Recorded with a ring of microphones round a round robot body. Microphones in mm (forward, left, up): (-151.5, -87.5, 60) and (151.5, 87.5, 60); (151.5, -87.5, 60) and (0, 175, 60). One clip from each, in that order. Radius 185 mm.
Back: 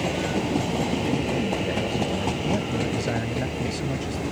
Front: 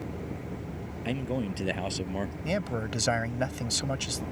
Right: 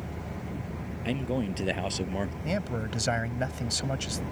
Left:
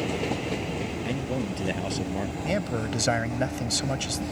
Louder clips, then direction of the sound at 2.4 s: Back 5 dB, left 4 dB; 60° left.